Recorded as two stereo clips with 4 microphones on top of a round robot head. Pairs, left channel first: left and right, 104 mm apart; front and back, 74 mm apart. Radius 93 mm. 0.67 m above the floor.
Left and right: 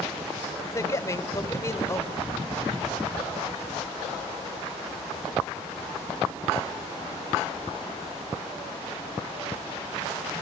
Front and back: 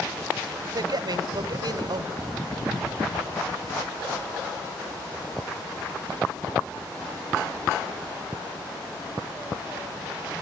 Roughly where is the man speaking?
Behind left.